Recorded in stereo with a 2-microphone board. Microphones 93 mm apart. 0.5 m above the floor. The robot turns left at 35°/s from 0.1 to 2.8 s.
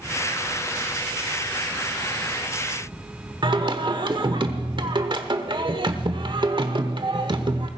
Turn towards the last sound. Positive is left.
turn(degrees=-55)  # may be behind; listen again after turning